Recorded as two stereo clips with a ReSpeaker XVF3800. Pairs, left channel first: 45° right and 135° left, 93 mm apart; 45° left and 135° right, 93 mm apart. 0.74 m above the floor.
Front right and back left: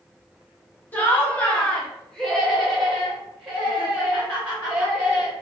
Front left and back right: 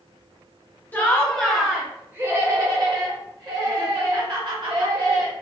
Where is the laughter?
Straight ahead, 1.0 m; by 5.3 s 150° right, 2.5 m.